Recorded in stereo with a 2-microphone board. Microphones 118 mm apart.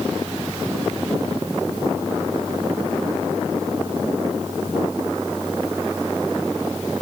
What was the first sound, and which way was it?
Only background noise.